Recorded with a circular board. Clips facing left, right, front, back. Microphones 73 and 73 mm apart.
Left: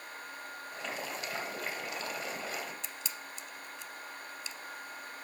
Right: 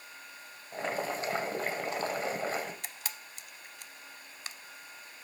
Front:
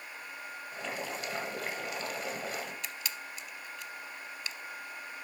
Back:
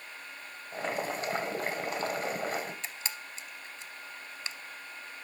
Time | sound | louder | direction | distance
0.7 | boiling | right 7 dB, back 6 dB | 135° right | 1.8 m
2.8 | a camera shutter | left 1 dB, even | 120° right | 0.6 m